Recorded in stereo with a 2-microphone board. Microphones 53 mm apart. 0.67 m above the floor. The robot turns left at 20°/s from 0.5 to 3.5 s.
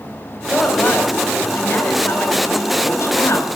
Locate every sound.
0.5 s a woman speaking: 175° left, 4 m; by 3.6 s 115° left, 4 m